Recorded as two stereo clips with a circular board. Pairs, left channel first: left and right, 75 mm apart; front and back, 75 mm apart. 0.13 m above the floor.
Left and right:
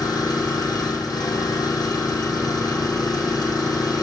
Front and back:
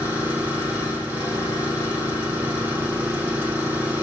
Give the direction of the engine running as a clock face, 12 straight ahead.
8 o'clock.